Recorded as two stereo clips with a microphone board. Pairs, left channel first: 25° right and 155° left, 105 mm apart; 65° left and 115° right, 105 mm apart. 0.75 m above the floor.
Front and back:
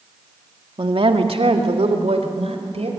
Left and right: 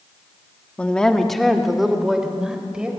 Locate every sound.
0.8 s a woman speaking: 140° left, 1.6 m; by 2.9 s 165° left, 4.5 m